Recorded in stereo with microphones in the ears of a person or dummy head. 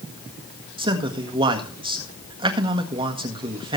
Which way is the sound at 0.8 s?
30° right (ahead or behind).